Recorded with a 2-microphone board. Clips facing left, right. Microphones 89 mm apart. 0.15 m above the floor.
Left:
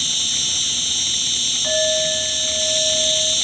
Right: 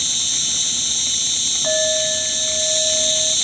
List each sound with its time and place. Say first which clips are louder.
0.0 s an insect: left 2 dB; 20° right (ahead or behind), 0.9 m
1.6 s a clink: even; 20° right (ahead or behind), 1.2 m